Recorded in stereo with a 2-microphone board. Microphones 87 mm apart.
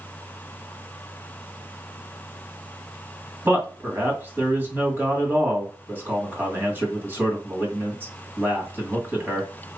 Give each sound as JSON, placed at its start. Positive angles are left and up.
{"t": 3.5, "sound": "a man speaking", "side_deg": -25, "distance_m": 2.0}